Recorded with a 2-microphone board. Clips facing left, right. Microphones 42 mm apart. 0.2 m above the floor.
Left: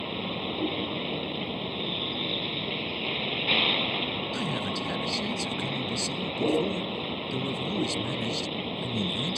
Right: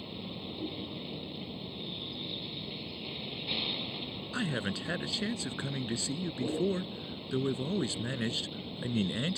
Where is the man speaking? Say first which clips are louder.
Left 4 dB; 30° right (ahead or behind).